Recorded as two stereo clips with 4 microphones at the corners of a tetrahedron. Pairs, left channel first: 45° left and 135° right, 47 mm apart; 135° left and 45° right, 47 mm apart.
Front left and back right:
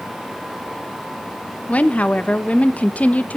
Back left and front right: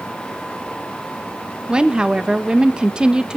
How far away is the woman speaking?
About 1.0 m.